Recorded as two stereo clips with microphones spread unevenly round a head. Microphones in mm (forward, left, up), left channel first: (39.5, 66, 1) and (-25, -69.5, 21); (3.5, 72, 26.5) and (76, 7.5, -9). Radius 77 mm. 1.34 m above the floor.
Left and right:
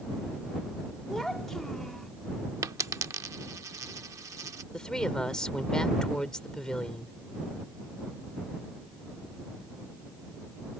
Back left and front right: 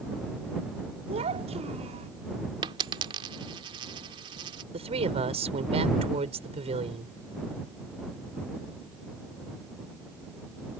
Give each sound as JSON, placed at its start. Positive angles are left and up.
{"t": 1.1, "sound": "a child speaking", "azimuth_deg": -25}
{"t": 2.6, "sound": "a dropped coin", "azimuth_deg": -85}
{"t": 4.7, "sound": "a woman speaking", "azimuth_deg": -20}